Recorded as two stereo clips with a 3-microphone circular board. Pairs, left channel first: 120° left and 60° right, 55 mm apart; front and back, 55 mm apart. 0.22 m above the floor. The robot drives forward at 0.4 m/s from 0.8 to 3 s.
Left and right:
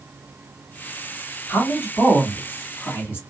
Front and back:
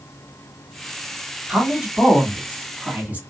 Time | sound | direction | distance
1.5 | a woman speaking | 110° left | 1.8 m